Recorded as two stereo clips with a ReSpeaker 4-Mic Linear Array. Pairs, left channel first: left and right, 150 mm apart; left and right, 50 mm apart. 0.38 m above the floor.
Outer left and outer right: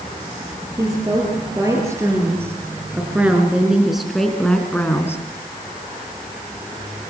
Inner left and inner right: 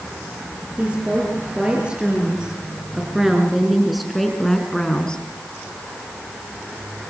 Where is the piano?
No piano in this recording.